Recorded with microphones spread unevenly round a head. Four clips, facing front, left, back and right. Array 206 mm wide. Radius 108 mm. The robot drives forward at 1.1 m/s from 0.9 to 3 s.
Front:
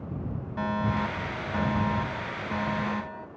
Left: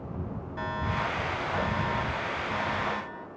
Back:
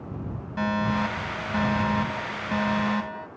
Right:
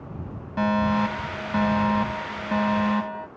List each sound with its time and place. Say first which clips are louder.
0.6 s a fire alarm: right 10 dB, back 3 dB; 110° right; by 3.3 s 115° right